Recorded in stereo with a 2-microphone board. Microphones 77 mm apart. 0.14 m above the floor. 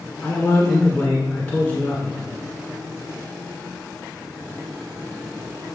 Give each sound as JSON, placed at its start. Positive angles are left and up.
{"t": 0.2, "sound": "a man speaking", "side_deg": 20, "distance_m": 1.3}